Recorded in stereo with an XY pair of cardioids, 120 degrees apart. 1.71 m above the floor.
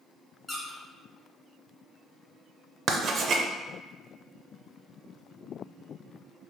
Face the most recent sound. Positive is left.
turn(degrees=-50)